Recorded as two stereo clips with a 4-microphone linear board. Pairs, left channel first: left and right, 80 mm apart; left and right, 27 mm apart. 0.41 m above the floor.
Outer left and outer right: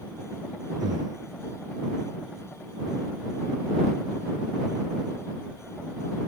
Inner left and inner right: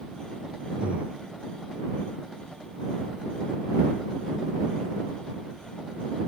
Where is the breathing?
60° right (ahead or behind).